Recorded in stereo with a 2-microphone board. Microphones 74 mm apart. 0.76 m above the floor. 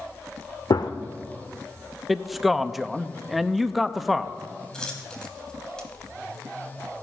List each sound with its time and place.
0.7 s a gunshot: 70° left (ahead or behind), 0.8 m
2.1 s a man speaking: 5° right (ahead or behind), 0.6 m
4.7 s a dropped coin: 10° left (ahead or behind), 2.5 m